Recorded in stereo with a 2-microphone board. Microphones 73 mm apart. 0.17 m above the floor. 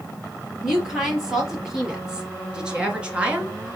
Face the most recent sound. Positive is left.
turn(degrees=-15)  # may be behind; listen again after turning